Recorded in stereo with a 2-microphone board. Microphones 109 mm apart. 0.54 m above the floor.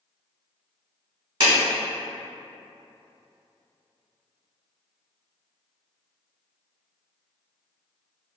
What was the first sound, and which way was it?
A clap, 50° right (ahead or behind).